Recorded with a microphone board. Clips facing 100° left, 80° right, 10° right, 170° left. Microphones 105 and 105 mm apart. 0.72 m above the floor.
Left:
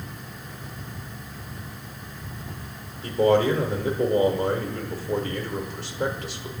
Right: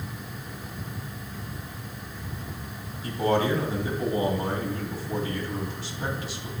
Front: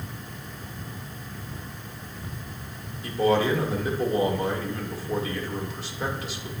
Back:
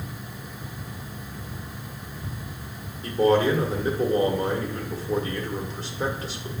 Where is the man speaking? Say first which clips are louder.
Left 5 dB, back 2 dB; 115° left, 1.7 m.